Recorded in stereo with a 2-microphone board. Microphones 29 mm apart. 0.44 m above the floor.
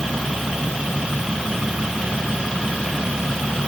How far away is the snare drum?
I don't hear a snare drum.